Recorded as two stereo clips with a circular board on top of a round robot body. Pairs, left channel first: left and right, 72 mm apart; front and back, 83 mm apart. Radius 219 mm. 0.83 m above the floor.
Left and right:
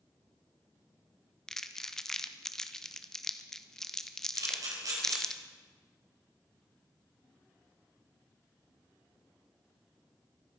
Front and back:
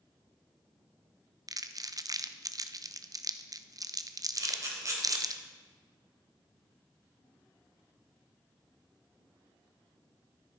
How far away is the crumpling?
About 1.2 m.